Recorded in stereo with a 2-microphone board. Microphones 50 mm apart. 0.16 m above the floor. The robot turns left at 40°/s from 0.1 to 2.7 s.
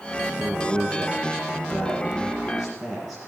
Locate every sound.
0.4 s a man speaking: 80° right, 3.5 m; by 3.2 s 175° right, 3.5 m